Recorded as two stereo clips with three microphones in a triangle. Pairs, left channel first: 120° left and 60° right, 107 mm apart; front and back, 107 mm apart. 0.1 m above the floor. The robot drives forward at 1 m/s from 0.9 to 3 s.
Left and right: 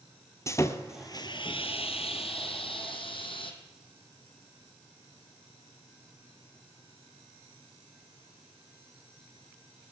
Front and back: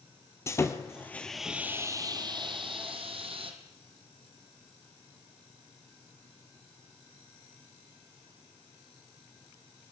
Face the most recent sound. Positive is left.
turn(degrees=155)